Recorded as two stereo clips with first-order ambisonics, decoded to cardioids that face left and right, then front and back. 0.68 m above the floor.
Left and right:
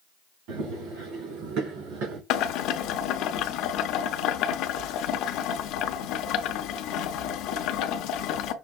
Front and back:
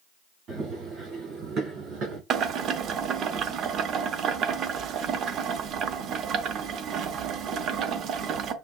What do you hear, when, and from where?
0.5 s running footsteps: 120° right, 3.5 m; by 2.2 s 130° right, 2.5 m
2.3 s boiling: 125° left, 0.6 m